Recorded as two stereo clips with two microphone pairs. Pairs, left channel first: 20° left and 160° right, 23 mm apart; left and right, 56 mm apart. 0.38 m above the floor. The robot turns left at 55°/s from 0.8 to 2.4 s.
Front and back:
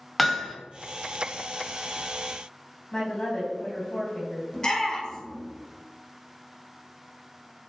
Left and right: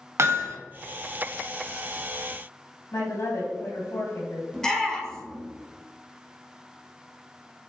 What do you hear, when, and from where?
0.2 s hammering: 65° right, 1.2 m
2.9 s a woman speaking: 70° left, 2.5 m
4.5 s a shout: 25° left, 1.5 m